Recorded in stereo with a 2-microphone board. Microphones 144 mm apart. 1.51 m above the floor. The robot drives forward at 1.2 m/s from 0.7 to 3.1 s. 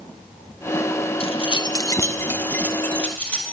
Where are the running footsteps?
I don't hear running footsteps.